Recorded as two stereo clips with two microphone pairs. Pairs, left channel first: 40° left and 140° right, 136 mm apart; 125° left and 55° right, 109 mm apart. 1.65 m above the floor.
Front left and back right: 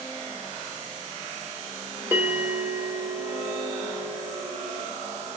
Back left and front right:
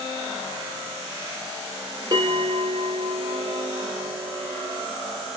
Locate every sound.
2.1 s a bell: 70° right, 1.3 m